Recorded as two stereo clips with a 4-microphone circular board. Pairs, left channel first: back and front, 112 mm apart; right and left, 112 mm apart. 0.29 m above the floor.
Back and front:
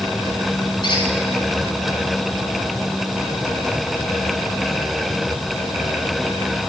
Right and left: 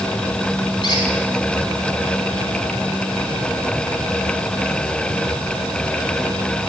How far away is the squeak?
About 2.5 m.